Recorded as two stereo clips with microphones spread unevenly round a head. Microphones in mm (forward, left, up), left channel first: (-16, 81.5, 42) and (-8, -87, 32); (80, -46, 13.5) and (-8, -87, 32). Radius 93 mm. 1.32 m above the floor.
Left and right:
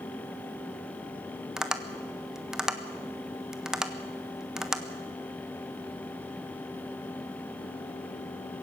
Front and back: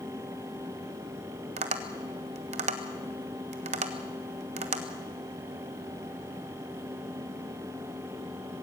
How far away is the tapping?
About 1.5 m.